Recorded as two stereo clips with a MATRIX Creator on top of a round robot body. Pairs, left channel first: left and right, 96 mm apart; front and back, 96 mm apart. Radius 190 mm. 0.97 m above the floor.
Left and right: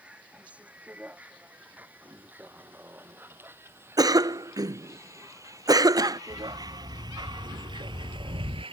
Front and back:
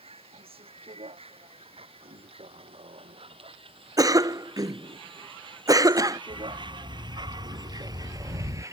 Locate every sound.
0.0 s a vehicle: 170° right; by 8.7 s 120° right
4.0 s a cough: 135° right
6.3 s a dog barking: 140° right